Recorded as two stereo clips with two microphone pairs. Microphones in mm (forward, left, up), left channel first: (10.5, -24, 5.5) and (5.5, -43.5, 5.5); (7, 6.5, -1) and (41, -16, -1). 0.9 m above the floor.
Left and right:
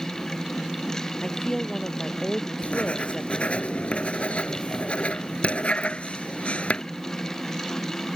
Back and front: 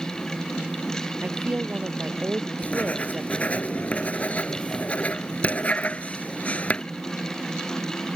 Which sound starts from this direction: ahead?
A woman speaking, at 1.2 s.